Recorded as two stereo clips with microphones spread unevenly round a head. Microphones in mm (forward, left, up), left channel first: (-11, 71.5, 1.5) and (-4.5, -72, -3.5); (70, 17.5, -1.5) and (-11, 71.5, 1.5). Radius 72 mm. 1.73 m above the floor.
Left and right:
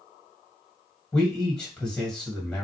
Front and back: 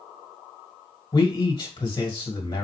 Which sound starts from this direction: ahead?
A man speaking, at 1.1 s.